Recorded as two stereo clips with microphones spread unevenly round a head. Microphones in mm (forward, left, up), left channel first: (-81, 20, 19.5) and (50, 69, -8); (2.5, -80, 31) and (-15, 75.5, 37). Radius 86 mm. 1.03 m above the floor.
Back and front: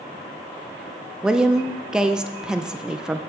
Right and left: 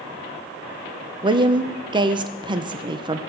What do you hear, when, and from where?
1.2 s a woman speaking: 75° left, 0.6 m